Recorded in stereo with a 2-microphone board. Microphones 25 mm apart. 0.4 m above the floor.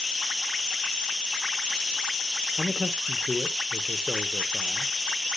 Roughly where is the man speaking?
Centre.